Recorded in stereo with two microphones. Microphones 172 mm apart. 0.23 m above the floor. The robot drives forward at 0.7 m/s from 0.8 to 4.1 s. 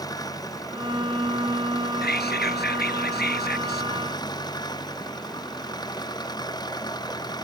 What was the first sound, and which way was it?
An engine running, 20° left (ahead or behind).